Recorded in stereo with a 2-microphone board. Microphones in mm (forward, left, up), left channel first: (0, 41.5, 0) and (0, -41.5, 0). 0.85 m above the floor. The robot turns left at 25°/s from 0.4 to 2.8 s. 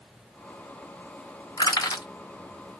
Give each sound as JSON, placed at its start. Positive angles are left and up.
{"t": 1.6, "sound": "crushing", "side_deg": 45, "distance_m": 1.3}